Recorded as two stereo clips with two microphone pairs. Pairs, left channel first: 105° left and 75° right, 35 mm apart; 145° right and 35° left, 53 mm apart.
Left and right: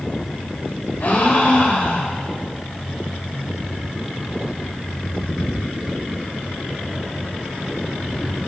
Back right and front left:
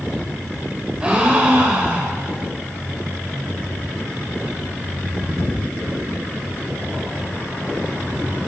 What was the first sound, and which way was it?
A gasp, 100° left.